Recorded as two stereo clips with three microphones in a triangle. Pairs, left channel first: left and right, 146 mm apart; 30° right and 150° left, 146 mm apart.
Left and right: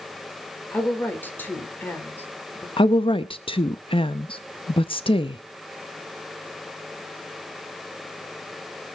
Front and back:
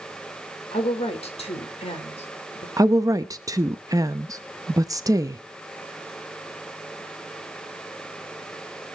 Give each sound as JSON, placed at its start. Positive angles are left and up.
{"t": 0.7, "sound": "a woman speaking", "azimuth_deg": 15, "distance_m": 2.5}
{"t": 2.8, "sound": "a woman speaking", "azimuth_deg": 100, "distance_m": 0.7}